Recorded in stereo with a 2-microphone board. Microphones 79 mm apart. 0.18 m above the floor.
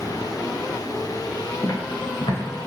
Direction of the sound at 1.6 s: 45° left (ahead or behind).